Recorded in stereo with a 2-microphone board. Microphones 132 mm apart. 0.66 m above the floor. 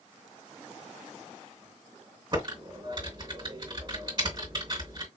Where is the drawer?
I don't hear a drawer.